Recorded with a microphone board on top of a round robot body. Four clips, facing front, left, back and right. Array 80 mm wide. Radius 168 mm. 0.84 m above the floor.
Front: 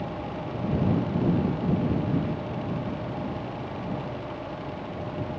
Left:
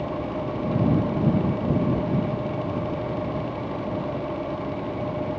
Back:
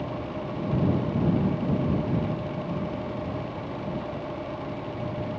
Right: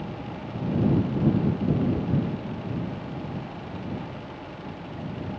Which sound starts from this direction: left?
An engine running, at 0.0 s.